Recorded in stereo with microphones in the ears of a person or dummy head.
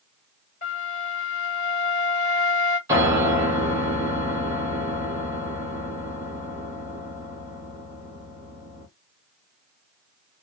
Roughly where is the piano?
Centre.